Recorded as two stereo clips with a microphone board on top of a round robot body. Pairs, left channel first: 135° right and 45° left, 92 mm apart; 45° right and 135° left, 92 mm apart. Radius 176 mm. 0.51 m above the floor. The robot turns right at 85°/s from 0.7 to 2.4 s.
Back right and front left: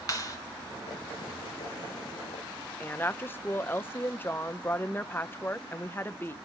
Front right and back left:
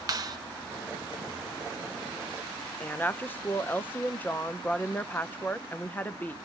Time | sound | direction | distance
0.1 | a clap | straight behind | 1.6 m
2.8 | a woman speaking | 95° right | 0.7 m